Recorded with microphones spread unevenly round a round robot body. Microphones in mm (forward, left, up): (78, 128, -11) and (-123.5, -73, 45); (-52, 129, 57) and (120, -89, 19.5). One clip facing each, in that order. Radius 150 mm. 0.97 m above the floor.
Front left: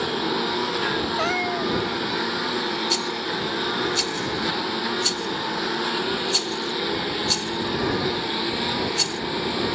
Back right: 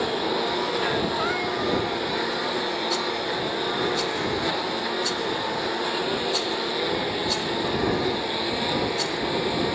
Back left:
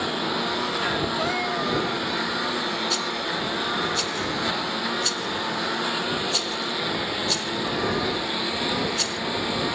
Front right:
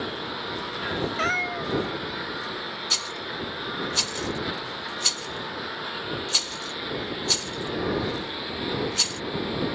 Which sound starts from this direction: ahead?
A cat meowing, at 1.2 s.